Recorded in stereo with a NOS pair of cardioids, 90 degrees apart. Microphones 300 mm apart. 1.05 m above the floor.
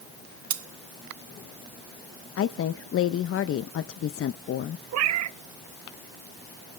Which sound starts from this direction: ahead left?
A woman speaking, at 2.4 s.